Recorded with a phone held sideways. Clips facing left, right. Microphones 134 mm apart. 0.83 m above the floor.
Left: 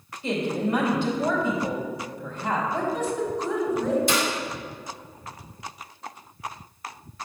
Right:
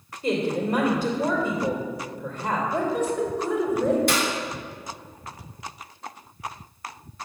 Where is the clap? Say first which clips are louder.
Even; 60° right (ahead or behind), 2.5 m.